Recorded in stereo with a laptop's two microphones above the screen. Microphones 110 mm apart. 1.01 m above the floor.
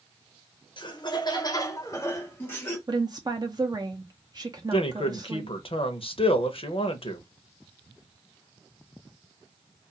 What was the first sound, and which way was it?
Laughter, 50° left (ahead or behind).